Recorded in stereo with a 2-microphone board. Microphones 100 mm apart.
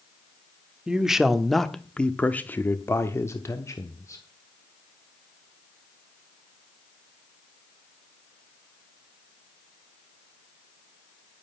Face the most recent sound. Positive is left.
turn(degrees=30)  # may be behind; listen again after turning